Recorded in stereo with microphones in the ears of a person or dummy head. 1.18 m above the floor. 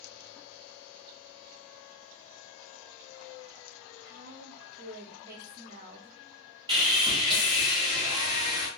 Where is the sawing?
25° right (ahead or behind), 1.1 m.